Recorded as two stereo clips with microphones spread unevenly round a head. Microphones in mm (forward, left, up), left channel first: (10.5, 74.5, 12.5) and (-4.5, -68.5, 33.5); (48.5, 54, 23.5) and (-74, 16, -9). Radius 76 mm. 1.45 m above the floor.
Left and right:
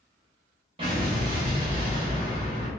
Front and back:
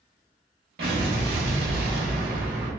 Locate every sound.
0.8 s an explosion: 140° right, 1.1 m